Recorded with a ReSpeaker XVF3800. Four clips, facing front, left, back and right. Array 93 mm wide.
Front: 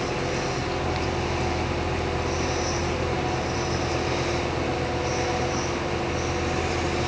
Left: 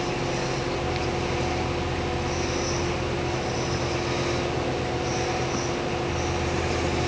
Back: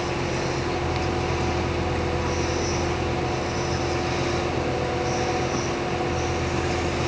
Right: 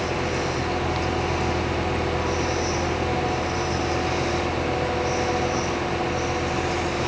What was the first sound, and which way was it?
Only background noise.